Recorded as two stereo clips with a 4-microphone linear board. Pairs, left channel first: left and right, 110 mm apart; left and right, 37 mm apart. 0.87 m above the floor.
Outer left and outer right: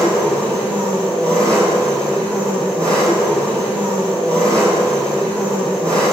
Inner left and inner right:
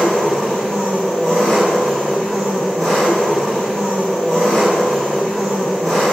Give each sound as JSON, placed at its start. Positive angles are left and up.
{"t": 0.0, "sound": "an engine running", "side_deg": 10, "distance_m": 4.0}